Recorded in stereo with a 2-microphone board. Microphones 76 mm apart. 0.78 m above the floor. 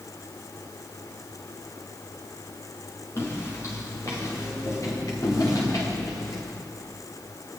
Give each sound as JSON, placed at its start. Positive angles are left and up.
{"t": 3.2, "sound": "footsteps", "side_deg": 35, "distance_m": 7.5}